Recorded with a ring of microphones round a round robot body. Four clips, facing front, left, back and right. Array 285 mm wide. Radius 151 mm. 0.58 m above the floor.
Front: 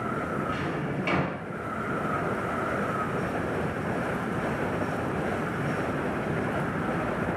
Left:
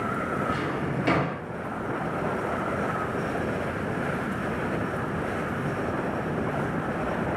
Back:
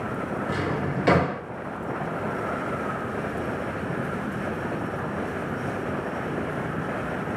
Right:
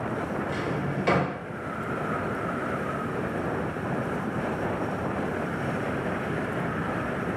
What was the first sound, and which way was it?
A drawer, straight behind.